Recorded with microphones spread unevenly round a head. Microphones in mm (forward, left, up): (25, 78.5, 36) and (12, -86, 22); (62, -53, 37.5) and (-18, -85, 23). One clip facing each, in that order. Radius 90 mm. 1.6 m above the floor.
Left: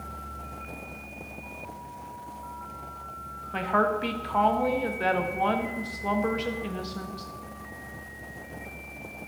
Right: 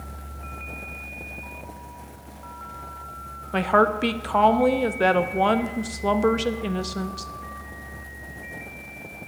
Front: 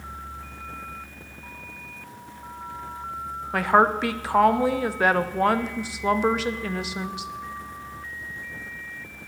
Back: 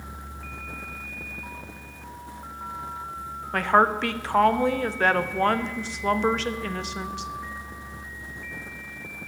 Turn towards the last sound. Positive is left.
turn(degrees=-60)